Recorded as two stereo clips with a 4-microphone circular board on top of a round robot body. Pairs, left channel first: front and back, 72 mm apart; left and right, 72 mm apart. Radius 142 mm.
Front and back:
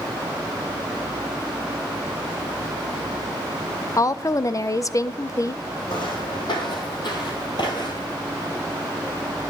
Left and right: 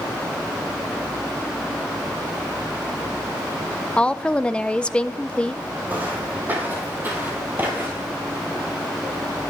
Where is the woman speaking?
20° left, 0.6 m.